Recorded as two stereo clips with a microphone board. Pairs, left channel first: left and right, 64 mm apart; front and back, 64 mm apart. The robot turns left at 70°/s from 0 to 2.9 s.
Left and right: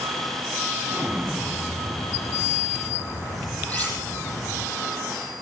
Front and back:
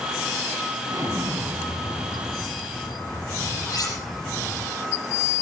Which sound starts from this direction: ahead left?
Cutlery clinking, at 3.7 s.